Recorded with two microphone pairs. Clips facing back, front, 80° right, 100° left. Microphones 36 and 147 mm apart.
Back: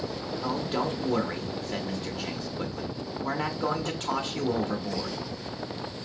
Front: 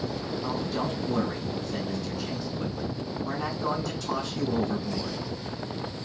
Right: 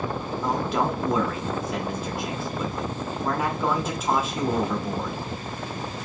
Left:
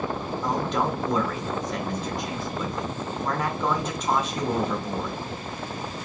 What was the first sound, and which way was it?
A man speaking, 160° right.